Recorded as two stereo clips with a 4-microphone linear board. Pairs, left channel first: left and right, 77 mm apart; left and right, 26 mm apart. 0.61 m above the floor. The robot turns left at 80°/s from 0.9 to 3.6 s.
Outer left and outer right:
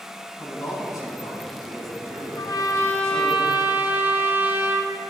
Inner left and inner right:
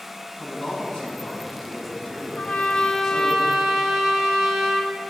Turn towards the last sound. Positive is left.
turn(degrees=-25)